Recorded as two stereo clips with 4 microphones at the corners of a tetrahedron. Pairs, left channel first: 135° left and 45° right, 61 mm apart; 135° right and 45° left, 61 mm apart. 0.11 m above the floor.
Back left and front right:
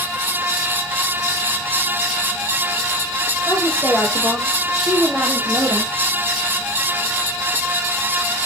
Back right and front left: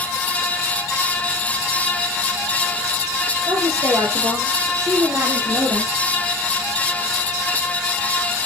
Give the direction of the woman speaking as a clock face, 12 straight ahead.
9 o'clock.